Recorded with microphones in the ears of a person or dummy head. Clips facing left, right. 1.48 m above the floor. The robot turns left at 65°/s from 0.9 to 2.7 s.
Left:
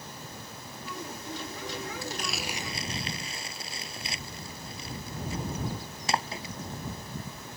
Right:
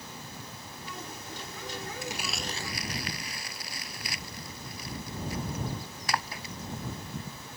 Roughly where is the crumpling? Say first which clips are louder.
Left 1 dB; right.